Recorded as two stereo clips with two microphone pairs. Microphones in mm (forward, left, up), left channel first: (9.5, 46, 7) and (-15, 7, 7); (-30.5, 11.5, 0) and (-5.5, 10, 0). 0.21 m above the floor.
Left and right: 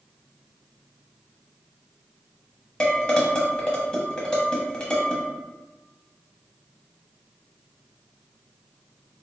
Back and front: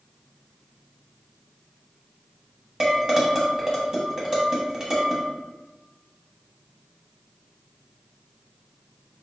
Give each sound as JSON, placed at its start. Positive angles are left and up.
{"t": 2.8, "sound": "dishes clattering", "azimuth_deg": 20, "distance_m": 0.9}